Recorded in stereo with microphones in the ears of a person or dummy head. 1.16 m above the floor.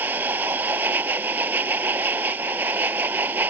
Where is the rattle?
I don't hear a rattle.